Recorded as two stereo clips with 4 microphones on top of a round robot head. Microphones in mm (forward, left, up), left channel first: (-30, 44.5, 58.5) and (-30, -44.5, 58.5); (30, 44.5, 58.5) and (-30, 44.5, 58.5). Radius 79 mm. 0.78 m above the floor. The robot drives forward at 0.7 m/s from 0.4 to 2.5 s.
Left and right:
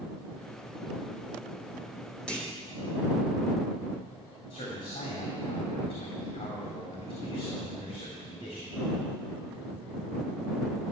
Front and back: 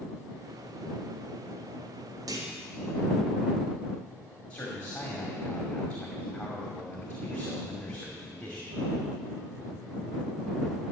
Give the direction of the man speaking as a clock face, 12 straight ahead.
10 o'clock.